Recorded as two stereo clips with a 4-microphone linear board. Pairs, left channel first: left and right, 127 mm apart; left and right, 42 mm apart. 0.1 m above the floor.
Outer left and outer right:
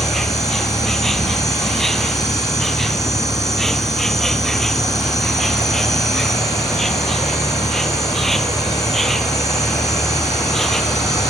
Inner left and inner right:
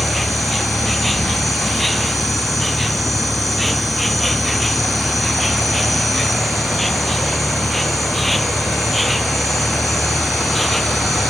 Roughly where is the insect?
Centre.